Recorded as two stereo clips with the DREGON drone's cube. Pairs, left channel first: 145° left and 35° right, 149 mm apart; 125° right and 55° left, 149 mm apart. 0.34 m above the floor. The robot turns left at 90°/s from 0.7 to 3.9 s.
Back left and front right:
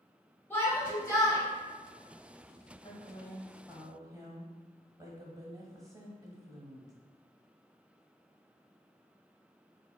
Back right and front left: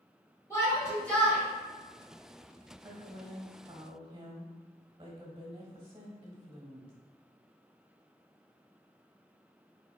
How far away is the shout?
About 1.2 m.